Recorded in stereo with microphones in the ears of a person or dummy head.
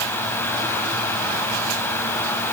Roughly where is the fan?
Centre.